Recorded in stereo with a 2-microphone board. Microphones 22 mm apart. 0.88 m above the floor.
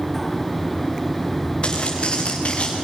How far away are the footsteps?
About 4.5 m.